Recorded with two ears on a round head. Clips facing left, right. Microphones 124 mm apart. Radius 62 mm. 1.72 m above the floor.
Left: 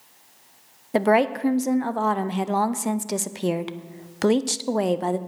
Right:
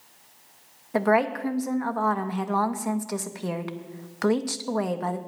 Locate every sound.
0.9 s a woman speaking: 30° left (ahead or behind), 0.5 m